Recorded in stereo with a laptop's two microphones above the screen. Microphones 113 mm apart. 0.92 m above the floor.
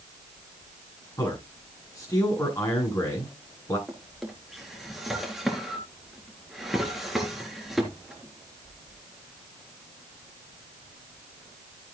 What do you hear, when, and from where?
1.2 s a man speaking: 30° left (ahead or behind), 9.5 m
3.9 s a drawer: centre (ahead or behind), 3.5 m